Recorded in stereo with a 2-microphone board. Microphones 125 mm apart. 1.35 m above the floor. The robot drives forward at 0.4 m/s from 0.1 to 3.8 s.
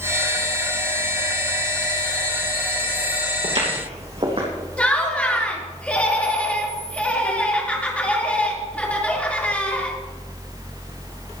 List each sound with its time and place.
3.4 s footsteps: 60° right (ahead or behind), 3 m; by 4.5 s 50° right (ahead or behind), 4 m
4.8 s laughter: 10° left (ahead or behind), 2.5 m